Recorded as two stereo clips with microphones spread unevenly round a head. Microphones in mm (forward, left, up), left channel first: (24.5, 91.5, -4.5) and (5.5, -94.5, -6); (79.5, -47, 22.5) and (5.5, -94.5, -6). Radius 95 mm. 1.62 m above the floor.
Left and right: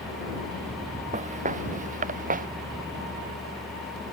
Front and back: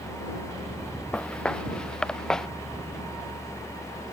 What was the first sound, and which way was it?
Footsteps, 45° right.